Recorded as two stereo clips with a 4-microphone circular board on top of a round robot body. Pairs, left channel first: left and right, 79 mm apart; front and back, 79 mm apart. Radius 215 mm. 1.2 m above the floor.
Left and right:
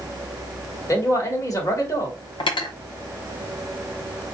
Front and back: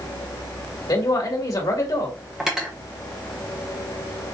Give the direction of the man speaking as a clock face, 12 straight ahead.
11 o'clock.